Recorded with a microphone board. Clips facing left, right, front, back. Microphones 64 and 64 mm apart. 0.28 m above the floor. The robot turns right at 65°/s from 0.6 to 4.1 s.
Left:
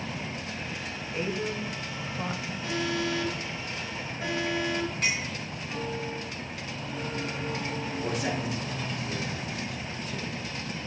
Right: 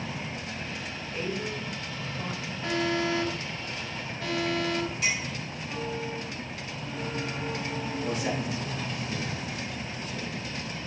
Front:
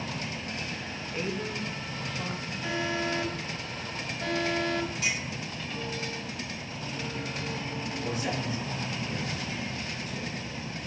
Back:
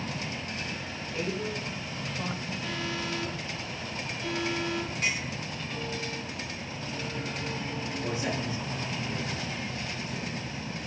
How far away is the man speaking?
About 3.5 m.